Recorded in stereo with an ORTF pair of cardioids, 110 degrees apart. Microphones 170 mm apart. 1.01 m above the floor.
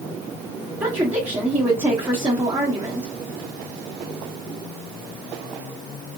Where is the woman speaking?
15° right, 1.2 m.